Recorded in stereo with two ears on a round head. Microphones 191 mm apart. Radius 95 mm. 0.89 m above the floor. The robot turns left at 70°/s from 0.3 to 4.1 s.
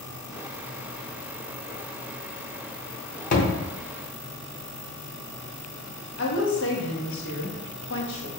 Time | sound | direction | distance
3.3 | a thud | 40° left (ahead or behind) | 0.8 m
6.2 | a woman speaking | 60° left (ahead or behind) | 1.1 m